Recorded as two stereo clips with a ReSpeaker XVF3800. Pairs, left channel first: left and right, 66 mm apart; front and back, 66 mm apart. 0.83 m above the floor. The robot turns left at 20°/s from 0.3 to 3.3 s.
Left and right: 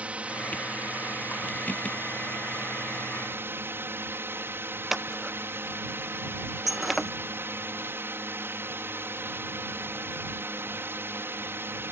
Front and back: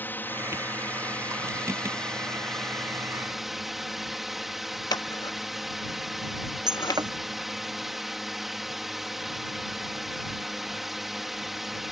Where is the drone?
35° right; by 11.9 s 95° right.